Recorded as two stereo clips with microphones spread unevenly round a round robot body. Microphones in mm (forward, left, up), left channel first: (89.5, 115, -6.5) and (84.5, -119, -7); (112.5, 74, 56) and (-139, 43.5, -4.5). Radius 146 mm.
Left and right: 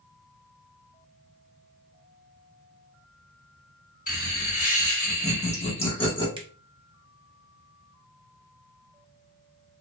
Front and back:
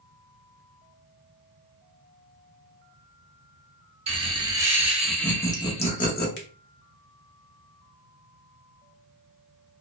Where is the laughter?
140° left, 1.3 m; by 6.3 s 40° left, 0.9 m.